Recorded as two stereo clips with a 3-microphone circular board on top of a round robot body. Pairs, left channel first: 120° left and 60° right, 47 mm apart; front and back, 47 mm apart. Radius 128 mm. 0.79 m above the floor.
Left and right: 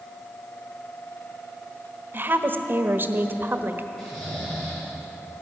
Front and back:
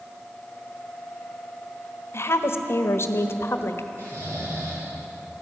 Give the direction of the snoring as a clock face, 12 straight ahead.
5 o'clock.